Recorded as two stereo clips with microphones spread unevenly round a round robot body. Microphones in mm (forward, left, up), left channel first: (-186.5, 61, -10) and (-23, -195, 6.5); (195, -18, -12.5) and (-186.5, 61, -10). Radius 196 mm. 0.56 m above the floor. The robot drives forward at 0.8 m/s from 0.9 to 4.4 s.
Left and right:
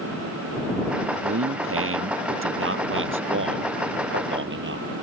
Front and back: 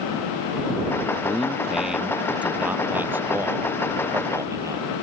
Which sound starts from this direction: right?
A man speaking, at 1.2 s.